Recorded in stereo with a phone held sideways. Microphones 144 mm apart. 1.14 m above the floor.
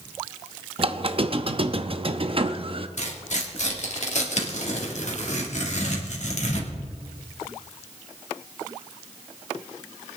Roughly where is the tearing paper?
Left.